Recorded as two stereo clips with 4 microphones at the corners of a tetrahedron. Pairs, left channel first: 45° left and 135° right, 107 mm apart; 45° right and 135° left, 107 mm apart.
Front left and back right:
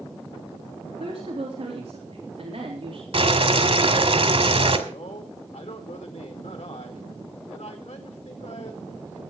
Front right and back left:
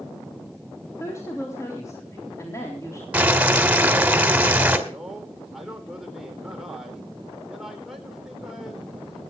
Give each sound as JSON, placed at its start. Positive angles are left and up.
{"t": 1.0, "sound": "a woman speaking", "azimuth_deg": -105, "distance_m": 3.5}
{"t": 3.1, "sound": "boiling", "azimuth_deg": -150, "distance_m": 2.0}
{"t": 4.9, "sound": "a man speaking", "azimuth_deg": 50, "distance_m": 4.0}